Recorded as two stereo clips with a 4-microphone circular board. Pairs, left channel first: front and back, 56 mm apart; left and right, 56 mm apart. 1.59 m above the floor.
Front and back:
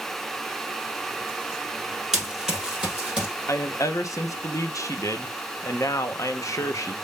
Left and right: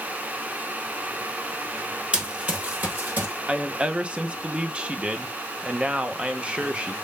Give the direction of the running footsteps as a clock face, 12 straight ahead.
4 o'clock.